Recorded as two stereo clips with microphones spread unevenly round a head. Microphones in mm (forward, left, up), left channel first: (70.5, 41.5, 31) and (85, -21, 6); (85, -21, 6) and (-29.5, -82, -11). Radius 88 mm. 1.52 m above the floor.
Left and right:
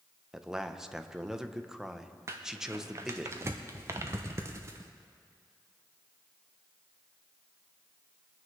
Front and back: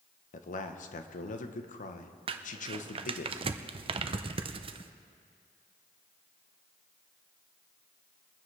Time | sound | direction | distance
0.3 | a man speaking | 10° left | 1.0 m
2.3 | crumpling | 150° right | 0.5 m